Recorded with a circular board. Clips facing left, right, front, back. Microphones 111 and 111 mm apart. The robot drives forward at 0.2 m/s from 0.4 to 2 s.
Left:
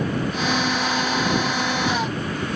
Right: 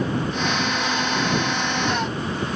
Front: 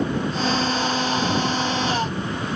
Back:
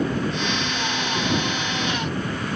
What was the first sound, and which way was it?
Only background noise.